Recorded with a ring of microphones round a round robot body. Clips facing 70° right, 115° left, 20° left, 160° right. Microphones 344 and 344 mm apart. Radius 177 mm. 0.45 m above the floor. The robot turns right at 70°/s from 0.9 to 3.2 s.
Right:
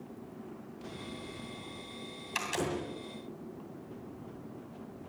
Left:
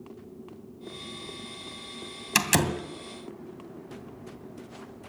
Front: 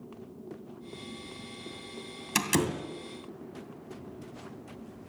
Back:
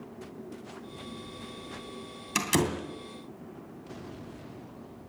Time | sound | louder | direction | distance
2.4 | a door slam | left 7 dB, back 1 dB | 95° left | 2.5 m